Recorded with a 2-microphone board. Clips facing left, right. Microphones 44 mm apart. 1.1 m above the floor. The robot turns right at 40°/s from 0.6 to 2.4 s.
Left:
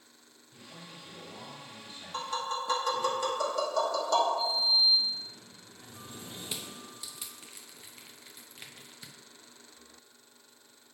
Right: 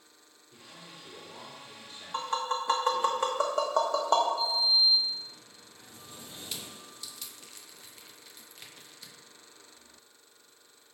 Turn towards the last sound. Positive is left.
turn(degrees=20)  # may be behind; listen again after turning